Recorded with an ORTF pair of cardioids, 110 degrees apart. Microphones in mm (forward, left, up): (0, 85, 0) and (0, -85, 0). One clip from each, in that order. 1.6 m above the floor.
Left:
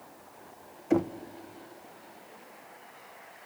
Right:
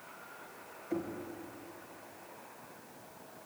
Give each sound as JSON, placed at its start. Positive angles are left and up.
{"t": 0.9, "sound": "knocking", "azimuth_deg": 70, "distance_m": 1.1}